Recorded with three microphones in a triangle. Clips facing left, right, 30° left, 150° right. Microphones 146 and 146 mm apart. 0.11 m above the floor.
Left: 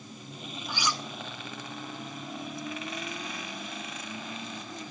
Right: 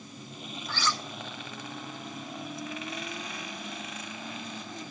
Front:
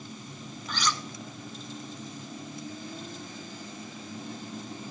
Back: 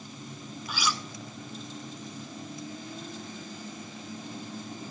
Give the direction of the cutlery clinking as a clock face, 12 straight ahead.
7 o'clock.